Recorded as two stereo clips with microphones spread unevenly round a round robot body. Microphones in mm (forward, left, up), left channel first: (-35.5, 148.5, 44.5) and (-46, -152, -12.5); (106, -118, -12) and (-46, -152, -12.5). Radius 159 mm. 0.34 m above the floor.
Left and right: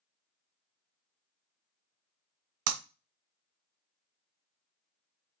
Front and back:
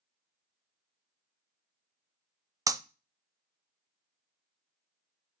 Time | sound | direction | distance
2.7 | breaking glass | 100° right | 0.7 m